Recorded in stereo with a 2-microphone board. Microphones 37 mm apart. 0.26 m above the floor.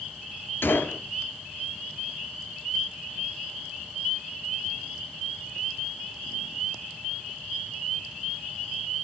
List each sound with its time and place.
0.6 s a gunshot: 80° left, 2.5 m